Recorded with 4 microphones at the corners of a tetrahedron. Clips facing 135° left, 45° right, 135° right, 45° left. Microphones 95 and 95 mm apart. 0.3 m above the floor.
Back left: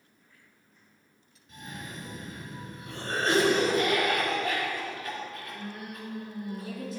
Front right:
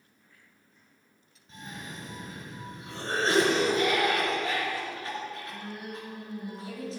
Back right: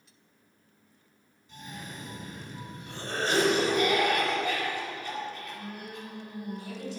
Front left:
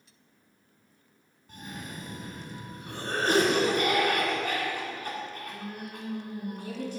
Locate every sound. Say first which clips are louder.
1.5 s a cough: even, front left 2 dB; 15° left, 3 m